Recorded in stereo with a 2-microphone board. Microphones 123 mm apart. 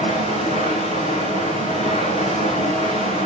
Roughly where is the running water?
Left.